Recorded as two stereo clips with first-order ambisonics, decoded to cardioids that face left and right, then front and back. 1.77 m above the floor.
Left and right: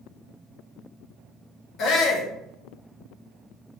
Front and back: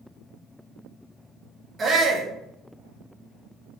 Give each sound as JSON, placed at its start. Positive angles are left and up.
{"t": 1.8, "sound": "a shout", "azimuth_deg": 115, "distance_m": 0.8}